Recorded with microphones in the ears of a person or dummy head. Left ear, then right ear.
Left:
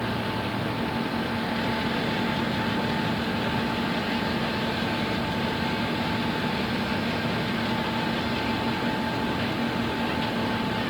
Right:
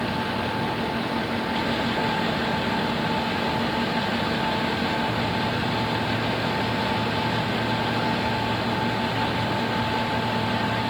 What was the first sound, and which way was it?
Only background noise.